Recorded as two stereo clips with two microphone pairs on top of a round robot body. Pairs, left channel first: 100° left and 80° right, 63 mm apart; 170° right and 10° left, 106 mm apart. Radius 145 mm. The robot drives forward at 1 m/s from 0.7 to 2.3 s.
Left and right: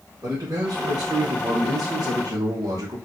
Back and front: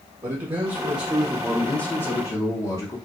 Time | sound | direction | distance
0.2 | a man speaking | 40° right | 1.5 m